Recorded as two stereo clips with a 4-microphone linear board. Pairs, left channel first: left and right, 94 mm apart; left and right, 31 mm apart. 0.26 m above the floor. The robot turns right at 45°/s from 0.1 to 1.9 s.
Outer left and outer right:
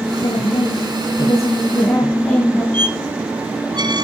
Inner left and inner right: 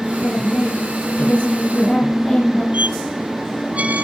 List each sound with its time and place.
0.2 s a woman speaking: 90° left, 4 m; by 2.6 s 165° left, 4 m
2.7 s a squeak: 50° right (ahead or behind), 0.6 m